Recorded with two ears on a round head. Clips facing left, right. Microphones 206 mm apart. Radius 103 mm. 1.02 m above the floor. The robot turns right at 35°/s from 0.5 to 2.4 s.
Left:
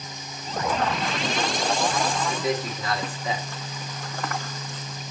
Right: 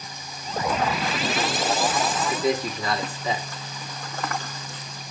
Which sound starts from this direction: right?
A man speaking, at 2.3 s.